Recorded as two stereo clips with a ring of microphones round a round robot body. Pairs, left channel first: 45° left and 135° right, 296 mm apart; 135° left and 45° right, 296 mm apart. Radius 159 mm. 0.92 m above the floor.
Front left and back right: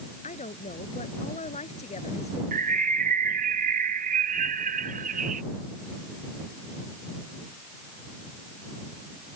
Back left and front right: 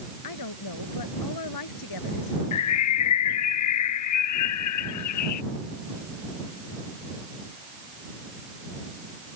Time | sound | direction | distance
0.2 | a woman speaking | 115° left | ?
2.5 | a bird | 160° left | ?